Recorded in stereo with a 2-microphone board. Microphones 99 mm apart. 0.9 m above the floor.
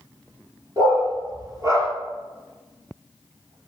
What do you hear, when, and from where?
0.8 s a dog barking: 40° right (ahead or behind), 4.5 m; by 1.9 s 35° right (ahead or behind), 6 m